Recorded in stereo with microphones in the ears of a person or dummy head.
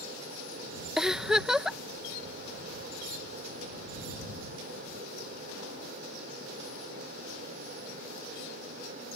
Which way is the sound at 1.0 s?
Centre (ahead or behind).